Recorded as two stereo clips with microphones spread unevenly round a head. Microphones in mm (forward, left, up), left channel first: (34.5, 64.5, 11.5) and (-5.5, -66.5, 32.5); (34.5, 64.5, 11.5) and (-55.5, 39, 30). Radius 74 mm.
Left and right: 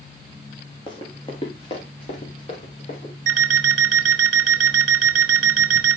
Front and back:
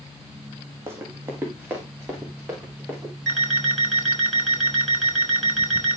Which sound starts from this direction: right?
An alarm clock, at 3.3 s.